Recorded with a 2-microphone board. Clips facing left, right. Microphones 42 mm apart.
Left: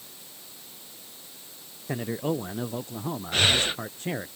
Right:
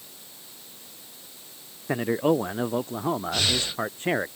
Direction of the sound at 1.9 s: 30° right (ahead or behind).